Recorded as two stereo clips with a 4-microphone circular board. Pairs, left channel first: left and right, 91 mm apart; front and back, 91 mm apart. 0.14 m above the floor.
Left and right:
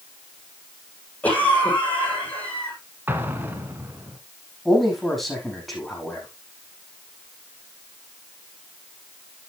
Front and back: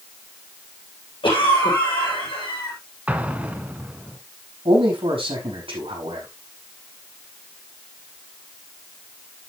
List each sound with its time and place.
1.2 s a cough: 15° left, 6 m
3.1 s an explosion: 125° right, 1.3 m
4.7 s a man speaking: 175° left, 5 m